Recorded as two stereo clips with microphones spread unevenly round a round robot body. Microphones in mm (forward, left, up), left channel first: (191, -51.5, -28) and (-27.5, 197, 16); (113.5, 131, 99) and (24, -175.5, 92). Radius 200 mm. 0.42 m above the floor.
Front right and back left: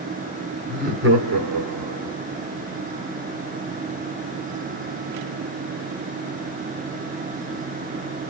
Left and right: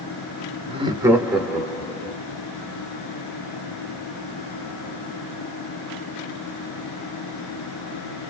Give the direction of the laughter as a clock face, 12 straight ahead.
5 o'clock.